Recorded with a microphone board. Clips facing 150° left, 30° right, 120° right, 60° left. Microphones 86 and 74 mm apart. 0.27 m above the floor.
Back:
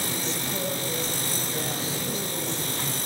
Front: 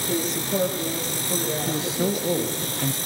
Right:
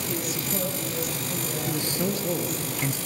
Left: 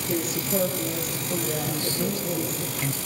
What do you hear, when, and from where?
0.1 s a woman speaking: 15° left, 8.5 m
1.7 s a man speaking: 50° right, 3.5 m